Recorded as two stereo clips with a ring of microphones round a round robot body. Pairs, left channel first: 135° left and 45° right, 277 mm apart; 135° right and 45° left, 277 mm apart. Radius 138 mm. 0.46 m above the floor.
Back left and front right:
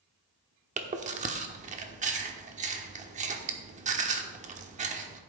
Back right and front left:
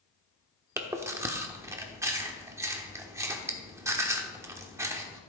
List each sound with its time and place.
0.8 s chewing: 25° right, 1.0 m